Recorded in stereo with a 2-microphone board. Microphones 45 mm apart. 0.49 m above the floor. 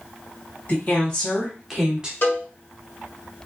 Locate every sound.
0.7 s a woman speaking: 40° left (ahead or behind), 1.3 m; by 2.1 s 20° right (ahead or behind), 1.2 m
2.2 s a cowbell: 55° left (ahead or behind), 1.6 m